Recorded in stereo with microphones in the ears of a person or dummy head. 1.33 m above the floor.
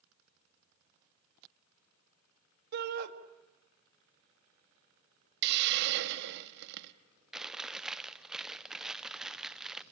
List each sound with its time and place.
2.7 s a shout: 60° right (ahead or behind), 1.8 m
5.4 s a hiss: 65° right (ahead or behind), 1.4 m
7.3 s chewing: centre (ahead or behind), 0.5 m